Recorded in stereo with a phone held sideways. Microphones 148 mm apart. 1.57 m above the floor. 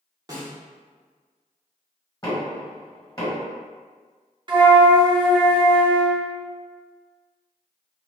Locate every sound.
0.3 s a snare drum: 25° right (ahead or behind), 0.9 m
2.2 s knocking: 25° left (ahead or behind), 1.7 m
4.5 s a flute: 35° right (ahead or behind), 0.6 m